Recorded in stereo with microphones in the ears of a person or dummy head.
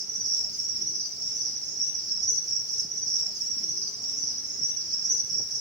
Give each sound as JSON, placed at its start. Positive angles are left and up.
{"t": 0.0, "sound": "an insect", "side_deg": -25, "distance_m": 0.7}